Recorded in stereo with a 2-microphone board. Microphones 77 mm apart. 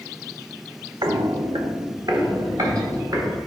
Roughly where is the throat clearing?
I don't hear throat clearing.